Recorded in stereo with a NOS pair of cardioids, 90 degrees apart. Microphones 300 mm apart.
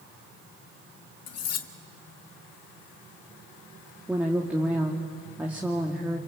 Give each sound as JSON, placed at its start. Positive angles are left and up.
{"t": 1.3, "sound": "cutlery clinking", "azimuth_deg": 60, "distance_m": 1.7}
{"t": 4.1, "sound": "a woman speaking", "azimuth_deg": -5, "distance_m": 2.5}